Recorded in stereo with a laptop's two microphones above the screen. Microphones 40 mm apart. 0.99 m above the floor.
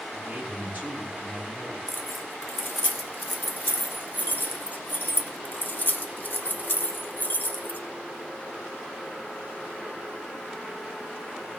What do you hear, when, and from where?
0.1 s a man speaking: 45° right (ahead or behind), 4.5 m
1.9 s keys jangling: 50° left (ahead or behind), 0.8 m